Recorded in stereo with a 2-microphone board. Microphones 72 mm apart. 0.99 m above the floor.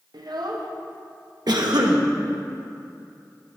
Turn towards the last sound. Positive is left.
turn(degrees=-70)  # may be behind; listen again after turning